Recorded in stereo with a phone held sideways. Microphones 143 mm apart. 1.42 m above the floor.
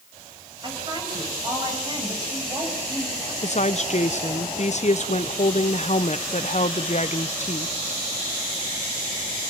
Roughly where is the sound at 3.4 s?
Left.